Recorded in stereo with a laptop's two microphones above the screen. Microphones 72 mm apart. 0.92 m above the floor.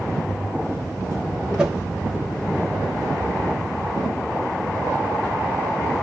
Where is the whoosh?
10° right (ahead or behind), 0.7 m.